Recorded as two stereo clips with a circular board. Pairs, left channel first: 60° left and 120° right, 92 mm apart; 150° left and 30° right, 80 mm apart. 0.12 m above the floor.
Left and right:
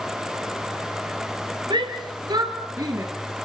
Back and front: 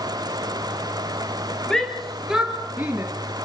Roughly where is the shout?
Behind right.